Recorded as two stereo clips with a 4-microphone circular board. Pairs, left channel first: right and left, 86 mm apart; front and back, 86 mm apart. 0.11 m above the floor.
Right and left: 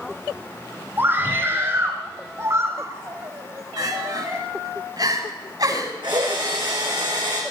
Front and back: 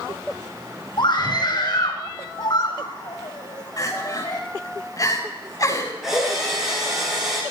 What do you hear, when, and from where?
1.0 s a scream: 30° left, 3.5 m; by 4.4 s 45° left, 5 m
3.8 s crying: 50° left, 7.5 m
6.0 s a drill: 95° left, 7.5 m